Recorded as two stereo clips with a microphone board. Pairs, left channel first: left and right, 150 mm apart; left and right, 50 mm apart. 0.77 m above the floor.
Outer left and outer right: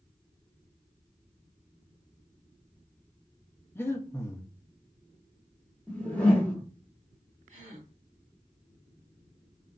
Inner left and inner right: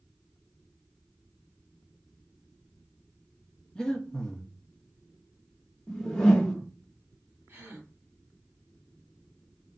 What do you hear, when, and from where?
3.8 s breathing: 15° left (ahead or behind), 0.6 m
5.9 s a whoosh: 10° left (ahead or behind), 0.7 m
7.5 s a gasp: 55° right (ahead or behind), 1.6 m